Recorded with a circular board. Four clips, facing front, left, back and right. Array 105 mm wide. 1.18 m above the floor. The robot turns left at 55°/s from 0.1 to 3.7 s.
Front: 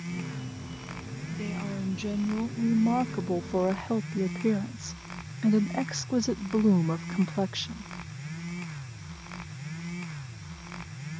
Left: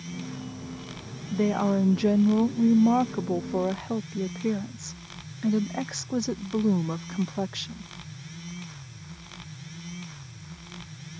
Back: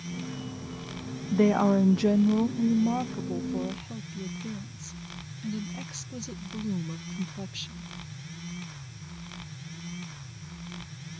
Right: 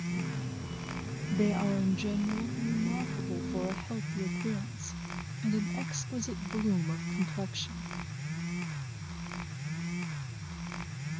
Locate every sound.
1.3 s a woman speaking: 165° left; by 7.9 s 35° left